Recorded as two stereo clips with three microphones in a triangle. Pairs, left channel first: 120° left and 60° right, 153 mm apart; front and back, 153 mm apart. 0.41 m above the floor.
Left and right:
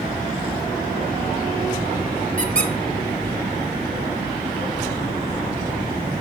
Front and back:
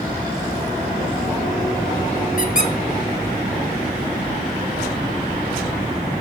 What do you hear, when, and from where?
2.4 s a squeak: 25° right, 0.9 m